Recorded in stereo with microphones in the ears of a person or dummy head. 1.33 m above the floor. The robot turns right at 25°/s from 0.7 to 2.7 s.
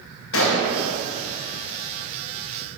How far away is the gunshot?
About 1.2 m.